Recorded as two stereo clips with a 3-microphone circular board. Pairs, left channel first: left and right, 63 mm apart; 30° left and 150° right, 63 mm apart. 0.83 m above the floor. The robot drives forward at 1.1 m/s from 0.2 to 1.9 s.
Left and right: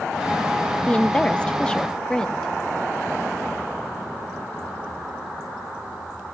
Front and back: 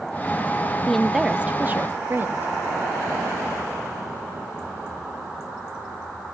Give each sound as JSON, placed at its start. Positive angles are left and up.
{"t": 0.9, "sound": "a woman speaking", "azimuth_deg": 75, "distance_m": 0.8}